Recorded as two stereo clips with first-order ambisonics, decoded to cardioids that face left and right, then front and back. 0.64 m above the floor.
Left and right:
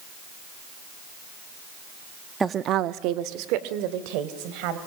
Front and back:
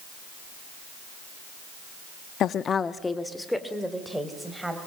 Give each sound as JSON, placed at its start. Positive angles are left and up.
{"t": 2.4, "sound": "a woman speaking", "azimuth_deg": -20, "distance_m": 0.6}